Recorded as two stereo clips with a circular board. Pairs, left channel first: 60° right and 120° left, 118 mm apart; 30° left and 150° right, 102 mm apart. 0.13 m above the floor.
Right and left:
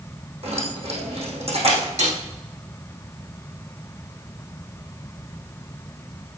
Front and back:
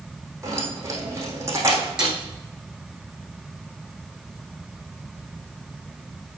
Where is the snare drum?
130° left, 5 m.